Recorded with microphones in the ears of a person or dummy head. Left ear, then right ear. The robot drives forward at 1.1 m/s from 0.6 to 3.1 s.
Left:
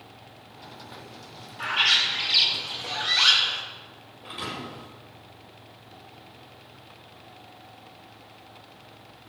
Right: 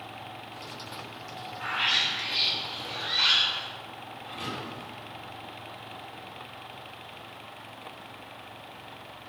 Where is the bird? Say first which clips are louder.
Left 5 dB; 50° left (ahead or behind), 2.5 m; by 3.6 s 85° left, 2.0 m.